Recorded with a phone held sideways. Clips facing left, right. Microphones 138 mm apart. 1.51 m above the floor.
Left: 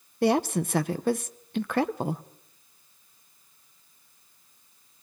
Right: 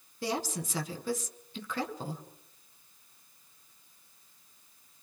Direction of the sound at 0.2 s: 65° left (ahead or behind).